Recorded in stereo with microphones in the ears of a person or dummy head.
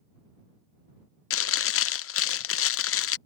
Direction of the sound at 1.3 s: 60° left (ahead or behind).